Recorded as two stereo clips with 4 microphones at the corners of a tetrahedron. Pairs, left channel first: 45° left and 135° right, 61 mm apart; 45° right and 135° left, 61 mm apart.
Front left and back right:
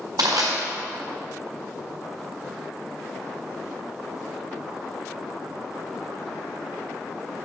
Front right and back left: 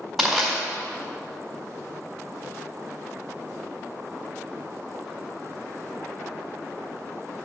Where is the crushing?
135° right, 4 m.